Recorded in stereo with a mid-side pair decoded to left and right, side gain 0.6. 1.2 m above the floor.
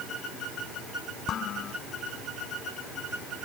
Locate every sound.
1.3 s dishes clattering: 50° left